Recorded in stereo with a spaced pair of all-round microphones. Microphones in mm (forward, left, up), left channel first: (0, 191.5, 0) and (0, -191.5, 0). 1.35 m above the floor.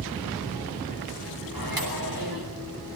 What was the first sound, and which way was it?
A microwave, 65° right (ahead or behind).